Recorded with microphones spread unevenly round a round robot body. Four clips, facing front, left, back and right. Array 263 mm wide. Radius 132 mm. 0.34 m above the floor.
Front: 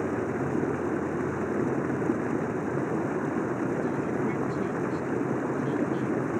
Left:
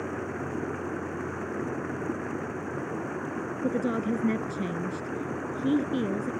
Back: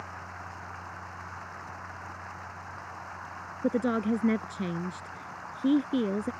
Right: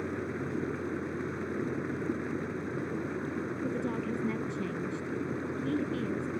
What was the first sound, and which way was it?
Running water, 5° right.